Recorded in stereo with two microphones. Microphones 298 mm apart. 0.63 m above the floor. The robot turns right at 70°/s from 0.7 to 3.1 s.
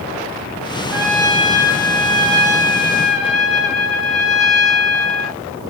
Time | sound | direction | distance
0.9 | a trumpet | 45° right | 1.7 m